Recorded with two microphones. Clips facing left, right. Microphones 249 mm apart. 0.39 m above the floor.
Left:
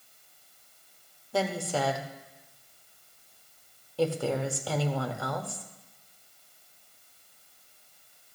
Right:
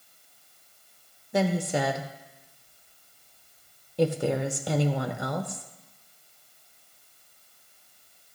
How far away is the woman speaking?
About 0.8 m.